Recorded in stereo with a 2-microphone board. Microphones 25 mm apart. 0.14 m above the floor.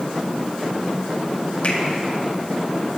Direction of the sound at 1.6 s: 50° left (ahead or behind).